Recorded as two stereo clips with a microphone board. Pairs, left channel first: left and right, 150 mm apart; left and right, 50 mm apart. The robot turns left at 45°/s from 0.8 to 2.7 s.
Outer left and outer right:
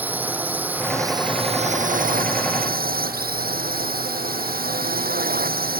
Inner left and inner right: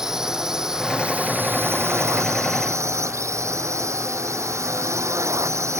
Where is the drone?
10° right; by 5.8 s 95° right.